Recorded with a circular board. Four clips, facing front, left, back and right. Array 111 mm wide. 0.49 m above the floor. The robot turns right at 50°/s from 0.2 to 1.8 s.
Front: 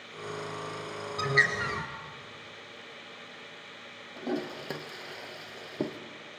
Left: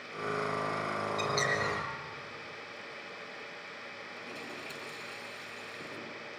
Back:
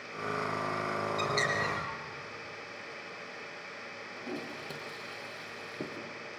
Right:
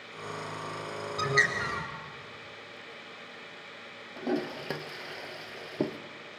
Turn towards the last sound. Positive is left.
turn(degrees=-65)